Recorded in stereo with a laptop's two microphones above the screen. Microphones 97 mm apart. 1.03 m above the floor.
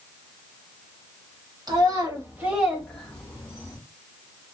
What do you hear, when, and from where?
1.7 s a child speaking: 45° right (ahead or behind), 1.5 m; by 3.8 s 40° left (ahead or behind), 1.5 m